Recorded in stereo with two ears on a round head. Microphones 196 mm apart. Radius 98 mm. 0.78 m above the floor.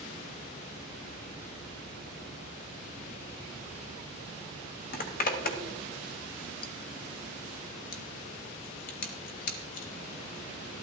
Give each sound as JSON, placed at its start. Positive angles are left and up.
{"t": 4.9, "sound": "a zipper", "side_deg": 45, "distance_m": 1.2}